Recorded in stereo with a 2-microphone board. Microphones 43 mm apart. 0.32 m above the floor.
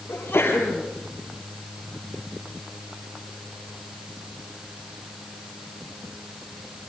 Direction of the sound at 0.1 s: 50° left (ahead or behind).